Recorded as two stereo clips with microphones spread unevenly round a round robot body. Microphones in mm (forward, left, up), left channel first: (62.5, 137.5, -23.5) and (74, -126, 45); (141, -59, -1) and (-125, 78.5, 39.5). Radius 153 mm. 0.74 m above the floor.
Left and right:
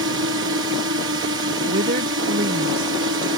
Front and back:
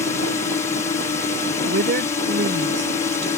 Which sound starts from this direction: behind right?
A woman speaking, at 1.7 s.